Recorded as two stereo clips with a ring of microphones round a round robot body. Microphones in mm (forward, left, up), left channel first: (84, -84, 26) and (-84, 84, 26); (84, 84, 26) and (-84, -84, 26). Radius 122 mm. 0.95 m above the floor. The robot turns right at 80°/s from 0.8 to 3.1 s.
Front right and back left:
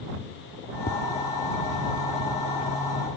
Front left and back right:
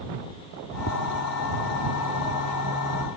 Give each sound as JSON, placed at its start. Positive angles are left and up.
{"t": 0.9, "sound": "tapping", "azimuth_deg": 10}